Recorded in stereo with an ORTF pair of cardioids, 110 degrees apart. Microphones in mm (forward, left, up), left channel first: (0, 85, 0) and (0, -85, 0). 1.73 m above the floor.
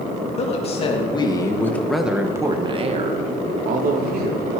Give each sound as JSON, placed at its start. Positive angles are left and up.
{"t": 0.4, "sound": "a woman speaking", "azimuth_deg": 40, "distance_m": 3.5}